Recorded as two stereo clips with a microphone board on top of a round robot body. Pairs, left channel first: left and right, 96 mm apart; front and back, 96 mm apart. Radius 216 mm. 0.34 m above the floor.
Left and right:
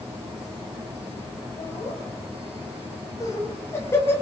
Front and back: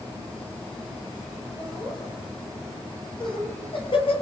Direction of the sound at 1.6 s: 45° left.